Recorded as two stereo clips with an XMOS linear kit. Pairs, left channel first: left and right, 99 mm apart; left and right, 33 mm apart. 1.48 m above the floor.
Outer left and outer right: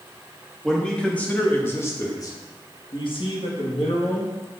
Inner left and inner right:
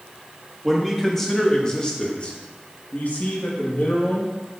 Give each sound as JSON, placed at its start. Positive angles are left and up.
{"t": 0.6, "sound": "a man speaking", "side_deg": 5, "distance_m": 2.5}